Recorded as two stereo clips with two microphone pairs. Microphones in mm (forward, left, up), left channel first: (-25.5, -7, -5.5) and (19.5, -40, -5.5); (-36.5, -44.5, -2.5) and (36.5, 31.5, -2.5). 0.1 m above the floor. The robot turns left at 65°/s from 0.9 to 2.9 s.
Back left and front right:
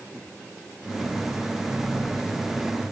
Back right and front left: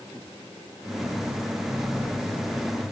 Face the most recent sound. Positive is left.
No sound to turn to.